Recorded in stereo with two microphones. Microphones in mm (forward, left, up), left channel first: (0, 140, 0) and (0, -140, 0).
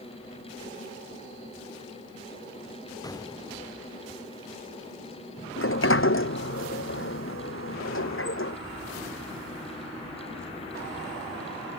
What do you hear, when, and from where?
3.0 s an explosion: 15° left (ahead or behind)
5.6 s a sliding door: 50° left (ahead or behind)